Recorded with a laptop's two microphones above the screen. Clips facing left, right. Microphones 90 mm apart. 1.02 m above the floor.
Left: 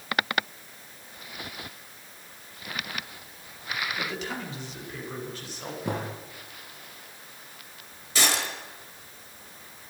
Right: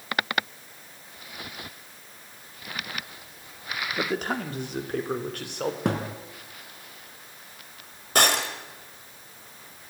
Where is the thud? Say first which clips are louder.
Right 1 dB; 75° right (ahead or behind), 3 m.